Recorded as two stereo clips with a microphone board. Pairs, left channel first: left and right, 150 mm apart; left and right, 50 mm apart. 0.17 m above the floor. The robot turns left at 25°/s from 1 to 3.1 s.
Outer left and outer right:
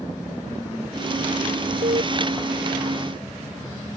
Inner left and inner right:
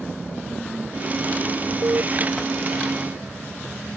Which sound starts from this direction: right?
An alarm, at 1.8 s.